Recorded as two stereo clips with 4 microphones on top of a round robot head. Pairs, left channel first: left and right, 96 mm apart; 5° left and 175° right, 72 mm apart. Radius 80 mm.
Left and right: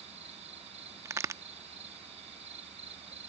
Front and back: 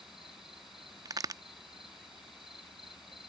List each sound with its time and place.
0.0 s an insect: 90° right
1.1 s a crack: 145° right